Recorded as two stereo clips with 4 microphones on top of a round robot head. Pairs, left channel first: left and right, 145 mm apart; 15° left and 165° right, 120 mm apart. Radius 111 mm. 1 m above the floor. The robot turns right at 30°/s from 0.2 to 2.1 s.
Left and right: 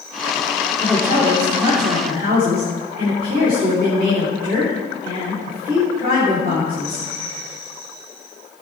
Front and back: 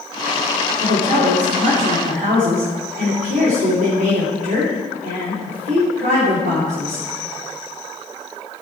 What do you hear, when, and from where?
0.8 s a woman speaking: 175° left, 2.5 m; by 7.1 s 145° right, 2.5 m